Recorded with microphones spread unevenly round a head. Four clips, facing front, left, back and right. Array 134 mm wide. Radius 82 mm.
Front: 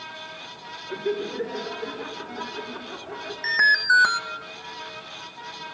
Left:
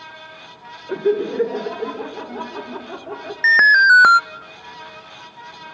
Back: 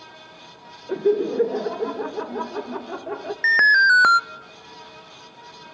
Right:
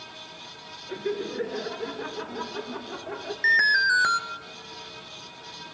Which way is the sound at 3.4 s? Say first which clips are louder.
Left 10 dB, back 5 dB; 85° left.